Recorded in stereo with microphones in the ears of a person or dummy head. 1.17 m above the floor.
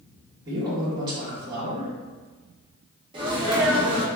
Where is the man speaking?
30° right (ahead or behind), 1.4 m.